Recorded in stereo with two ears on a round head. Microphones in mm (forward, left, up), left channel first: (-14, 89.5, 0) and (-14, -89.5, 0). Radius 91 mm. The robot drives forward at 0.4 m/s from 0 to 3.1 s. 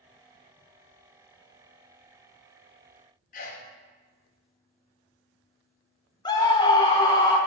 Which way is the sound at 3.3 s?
40° left (ahead or behind).